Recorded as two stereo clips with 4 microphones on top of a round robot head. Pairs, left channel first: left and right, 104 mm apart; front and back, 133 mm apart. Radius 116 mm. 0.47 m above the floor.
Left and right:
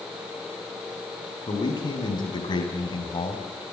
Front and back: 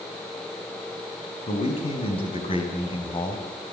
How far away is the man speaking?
About 7 m.